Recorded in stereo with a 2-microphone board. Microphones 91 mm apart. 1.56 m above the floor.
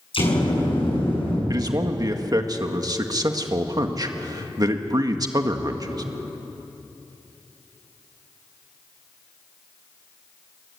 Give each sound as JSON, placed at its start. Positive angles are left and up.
{"t": 0.1, "sound": "an explosion", "side_deg": 70, "distance_m": 8.5}
{"t": 1.5, "sound": "a man speaking", "side_deg": -40, "distance_m": 1.7}